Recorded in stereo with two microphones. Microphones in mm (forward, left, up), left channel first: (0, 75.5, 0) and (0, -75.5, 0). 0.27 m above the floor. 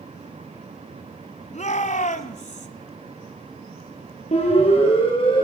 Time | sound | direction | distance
1.5 | a shout | 50° left (ahead or behind) | 1.8 m
4.3 | a siren | 45° left (ahead or behind) | 8.5 m